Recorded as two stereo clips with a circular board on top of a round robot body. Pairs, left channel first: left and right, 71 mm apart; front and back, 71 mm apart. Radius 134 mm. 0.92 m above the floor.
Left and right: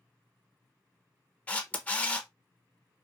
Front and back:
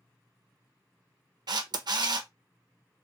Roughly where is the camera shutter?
Behind.